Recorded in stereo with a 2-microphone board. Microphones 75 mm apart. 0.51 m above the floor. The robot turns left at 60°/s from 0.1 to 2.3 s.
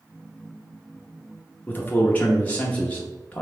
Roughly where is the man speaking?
Left.